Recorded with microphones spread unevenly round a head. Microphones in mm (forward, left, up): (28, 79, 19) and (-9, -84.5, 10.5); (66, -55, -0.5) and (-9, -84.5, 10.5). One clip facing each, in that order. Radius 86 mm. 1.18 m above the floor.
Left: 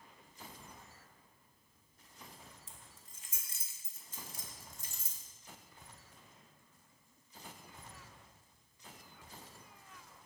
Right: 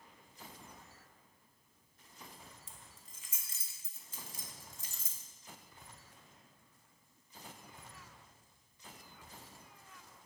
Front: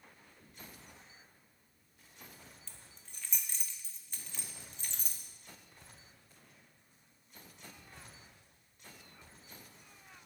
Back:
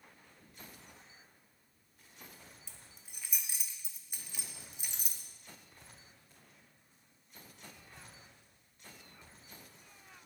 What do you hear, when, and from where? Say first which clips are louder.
2.7 s keys jangling: right 1 dB, even; 80° right, 1.1 m